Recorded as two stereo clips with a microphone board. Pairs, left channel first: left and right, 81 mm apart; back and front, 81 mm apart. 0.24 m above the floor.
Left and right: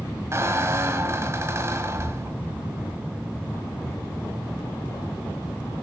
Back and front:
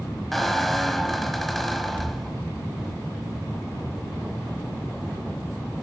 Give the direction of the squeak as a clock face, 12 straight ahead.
3 o'clock.